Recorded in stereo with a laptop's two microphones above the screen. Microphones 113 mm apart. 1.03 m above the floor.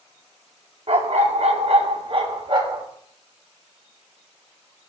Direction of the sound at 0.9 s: 60° right (ahead or behind).